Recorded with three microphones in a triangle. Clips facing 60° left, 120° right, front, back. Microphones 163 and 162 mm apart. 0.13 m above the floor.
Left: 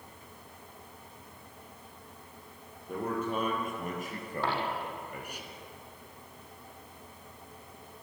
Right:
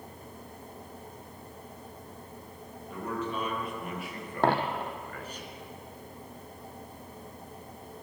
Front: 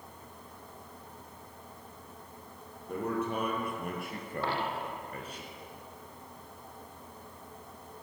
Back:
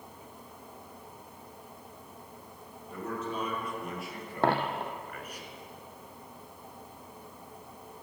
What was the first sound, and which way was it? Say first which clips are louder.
A man speaking: left 2 dB, front 4 dB; 25° left.